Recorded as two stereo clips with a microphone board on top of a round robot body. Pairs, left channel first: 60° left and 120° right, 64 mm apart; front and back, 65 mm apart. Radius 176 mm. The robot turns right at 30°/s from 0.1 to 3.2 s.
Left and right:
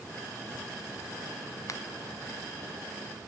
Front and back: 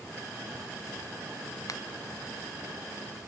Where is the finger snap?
25° left, 1.7 m; by 1.8 s 30° left, 1.7 m.